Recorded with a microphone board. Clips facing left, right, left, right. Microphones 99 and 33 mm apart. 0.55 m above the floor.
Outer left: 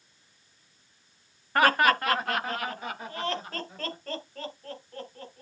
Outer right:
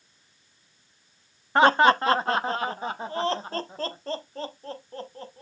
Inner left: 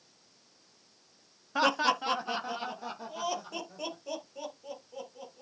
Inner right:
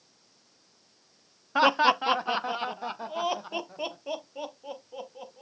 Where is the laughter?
20° right (ahead or behind), 0.7 m; by 5.4 s 30° right (ahead or behind), 3 m.